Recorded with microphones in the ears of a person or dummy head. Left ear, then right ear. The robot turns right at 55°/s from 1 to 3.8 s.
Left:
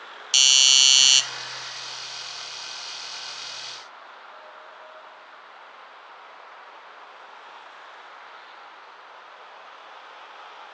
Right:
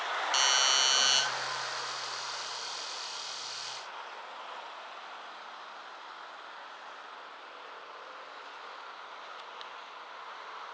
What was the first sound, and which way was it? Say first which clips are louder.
A doorbell: left 10 dB; 30° left (ahead or behind).